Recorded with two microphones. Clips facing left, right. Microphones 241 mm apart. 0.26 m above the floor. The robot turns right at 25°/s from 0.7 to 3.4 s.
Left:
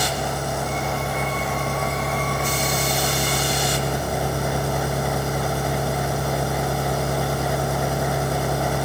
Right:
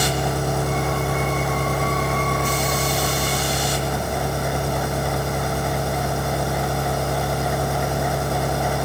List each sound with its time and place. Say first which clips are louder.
0.0 s an engine running: right 3 dB; 60° right, 5.5 m; by 8.9 s 5° left, 5.5 m